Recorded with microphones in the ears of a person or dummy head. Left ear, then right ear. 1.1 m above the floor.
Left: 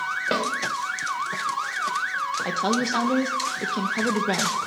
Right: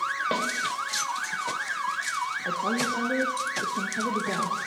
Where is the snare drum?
10° left (ahead or behind), 1.3 m.